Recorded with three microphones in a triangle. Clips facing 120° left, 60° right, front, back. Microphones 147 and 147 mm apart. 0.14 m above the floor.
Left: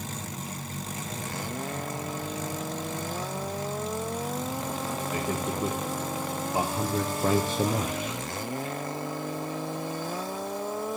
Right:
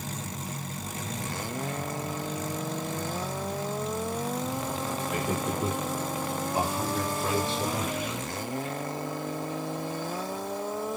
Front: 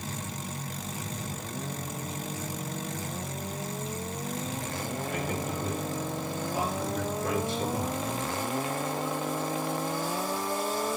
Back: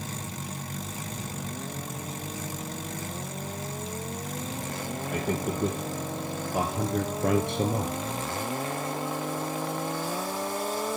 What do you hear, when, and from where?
5.1 s a man speaking: 145° right, 3.5 m; by 8.0 s 140° left, 2.5 m